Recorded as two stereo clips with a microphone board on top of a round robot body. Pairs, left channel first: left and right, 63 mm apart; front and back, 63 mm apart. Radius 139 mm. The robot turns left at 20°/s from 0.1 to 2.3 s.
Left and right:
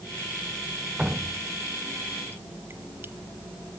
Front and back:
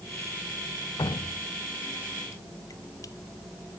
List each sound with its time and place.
1.0 s dripping: 10° right, 0.8 m; by 3.1 s 35° right, 0.8 m